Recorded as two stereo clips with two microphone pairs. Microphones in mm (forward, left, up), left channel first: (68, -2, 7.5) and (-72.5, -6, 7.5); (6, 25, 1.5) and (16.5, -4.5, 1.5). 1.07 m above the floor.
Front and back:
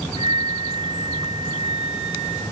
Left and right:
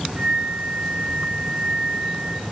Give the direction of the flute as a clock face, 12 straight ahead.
2 o'clock.